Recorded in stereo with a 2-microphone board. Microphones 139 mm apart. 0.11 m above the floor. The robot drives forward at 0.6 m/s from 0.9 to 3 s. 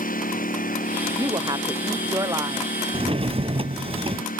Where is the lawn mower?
85° left.